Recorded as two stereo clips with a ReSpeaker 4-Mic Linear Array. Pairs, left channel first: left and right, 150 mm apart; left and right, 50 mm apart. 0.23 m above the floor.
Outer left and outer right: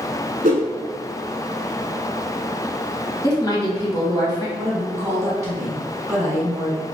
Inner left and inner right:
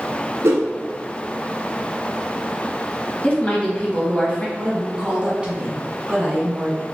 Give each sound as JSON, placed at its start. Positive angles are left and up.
{"t": 0.4, "sound": "a whoosh", "side_deg": -70, "distance_m": 0.9}
{"t": 3.2, "sound": "a woman speaking", "side_deg": 25, "distance_m": 1.2}
{"t": 4.6, "sound": "a woman speaking", "side_deg": -20, "distance_m": 1.9}